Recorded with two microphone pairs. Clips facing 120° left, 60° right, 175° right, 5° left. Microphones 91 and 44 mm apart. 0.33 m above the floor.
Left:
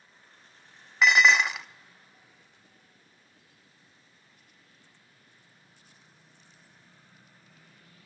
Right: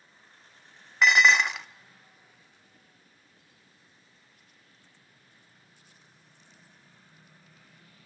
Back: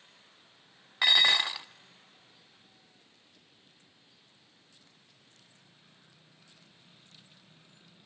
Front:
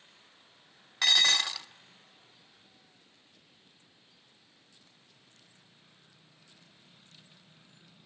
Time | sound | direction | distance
1.0 | dishes clattering | 150° right | 0.7 m